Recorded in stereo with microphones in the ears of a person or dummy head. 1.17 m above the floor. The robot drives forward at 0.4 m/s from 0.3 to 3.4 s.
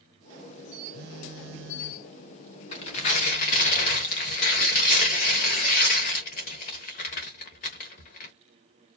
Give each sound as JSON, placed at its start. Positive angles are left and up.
{"t": 0.9, "sound": "a phone buzzing", "side_deg": -55, "distance_m": 0.6}
{"t": 2.7, "sound": "tearing paper", "side_deg": 35, "distance_m": 1.1}